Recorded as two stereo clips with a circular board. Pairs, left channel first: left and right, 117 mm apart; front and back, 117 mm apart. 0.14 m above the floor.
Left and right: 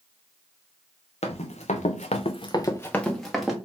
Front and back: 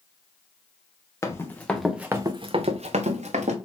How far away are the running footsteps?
About 1.3 m.